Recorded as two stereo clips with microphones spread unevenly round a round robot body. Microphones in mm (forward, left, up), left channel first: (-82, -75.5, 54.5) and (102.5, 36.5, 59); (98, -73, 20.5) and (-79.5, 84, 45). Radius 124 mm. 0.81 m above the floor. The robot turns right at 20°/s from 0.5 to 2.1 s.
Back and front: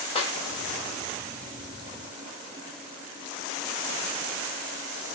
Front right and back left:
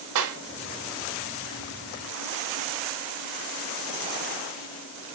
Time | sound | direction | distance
0.1 | a clap | 145° left | 2.5 m